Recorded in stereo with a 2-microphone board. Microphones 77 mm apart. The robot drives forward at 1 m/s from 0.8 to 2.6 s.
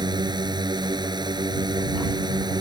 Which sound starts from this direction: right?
A drone, at 0.0 s.